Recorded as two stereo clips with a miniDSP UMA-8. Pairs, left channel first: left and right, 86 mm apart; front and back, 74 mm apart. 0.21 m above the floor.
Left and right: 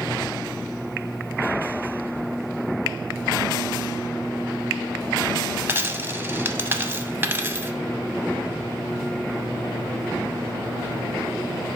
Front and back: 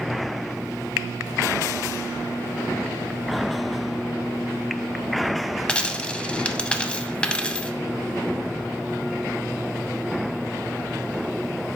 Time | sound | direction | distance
5.7 | a dropped coin | 60° right | 0.6 m